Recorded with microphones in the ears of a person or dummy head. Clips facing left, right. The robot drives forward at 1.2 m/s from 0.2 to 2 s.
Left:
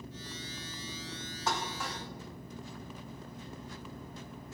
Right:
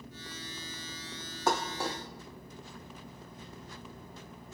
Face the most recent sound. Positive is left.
turn(degrees=-25)  # may be behind; listen again after turning